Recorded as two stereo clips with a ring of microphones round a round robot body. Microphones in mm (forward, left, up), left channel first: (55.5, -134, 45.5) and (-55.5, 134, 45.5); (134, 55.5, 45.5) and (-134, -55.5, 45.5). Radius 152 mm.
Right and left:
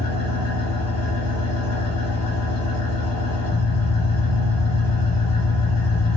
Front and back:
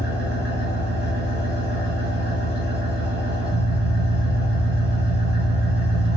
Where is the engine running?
100° right, 1.4 m.